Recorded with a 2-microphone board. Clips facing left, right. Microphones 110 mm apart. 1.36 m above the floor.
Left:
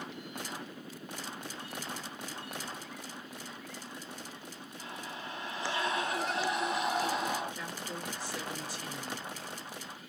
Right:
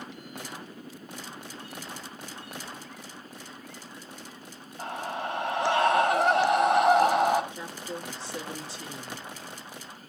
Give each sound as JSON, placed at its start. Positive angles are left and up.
{"t": 4.8, "sound": "a scream", "side_deg": -85, "distance_m": 3.0}
{"t": 7.5, "sound": "a woman speaking", "side_deg": -30, "distance_m": 4.0}